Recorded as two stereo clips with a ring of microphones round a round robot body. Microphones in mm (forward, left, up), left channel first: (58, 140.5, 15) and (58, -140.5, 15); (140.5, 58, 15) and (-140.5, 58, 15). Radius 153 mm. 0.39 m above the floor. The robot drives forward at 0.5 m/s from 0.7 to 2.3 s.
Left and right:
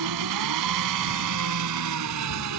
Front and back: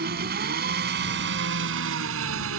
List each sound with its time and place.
0.0 s an engine running: 120° right; by 2.6 s 130° right